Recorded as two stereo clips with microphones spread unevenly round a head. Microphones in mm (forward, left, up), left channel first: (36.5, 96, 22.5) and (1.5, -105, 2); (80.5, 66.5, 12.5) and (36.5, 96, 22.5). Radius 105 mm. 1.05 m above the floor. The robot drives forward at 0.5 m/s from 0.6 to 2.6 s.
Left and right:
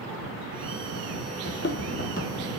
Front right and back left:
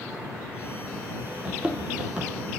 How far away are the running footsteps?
About 1.5 m.